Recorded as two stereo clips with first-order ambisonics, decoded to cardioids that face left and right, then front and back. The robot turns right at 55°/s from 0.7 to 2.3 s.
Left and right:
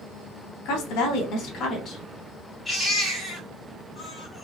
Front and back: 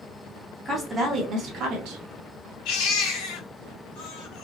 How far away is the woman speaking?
About 1.1 m.